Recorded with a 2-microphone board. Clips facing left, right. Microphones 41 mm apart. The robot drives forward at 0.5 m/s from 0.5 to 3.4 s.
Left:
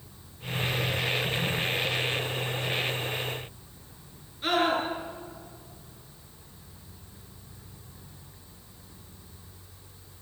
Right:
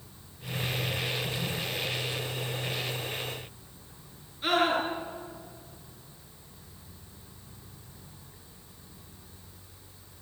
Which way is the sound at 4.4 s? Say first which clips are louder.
Even; centre (ahead or behind).